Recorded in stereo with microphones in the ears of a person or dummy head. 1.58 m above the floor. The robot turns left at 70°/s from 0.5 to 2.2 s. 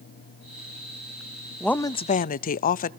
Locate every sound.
1.6 s a woman speaking: straight behind, 0.5 m; by 2.9 s 140° left, 0.5 m